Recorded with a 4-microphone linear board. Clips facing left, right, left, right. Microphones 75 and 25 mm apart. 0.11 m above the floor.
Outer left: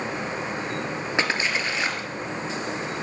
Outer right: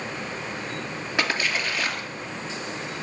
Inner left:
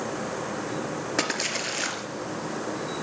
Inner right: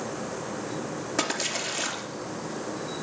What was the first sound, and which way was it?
A splash, 20° left (ahead or behind).